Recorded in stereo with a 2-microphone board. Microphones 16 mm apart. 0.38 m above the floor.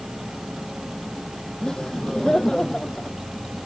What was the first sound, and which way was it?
Laughter, 45° left (ahead or behind).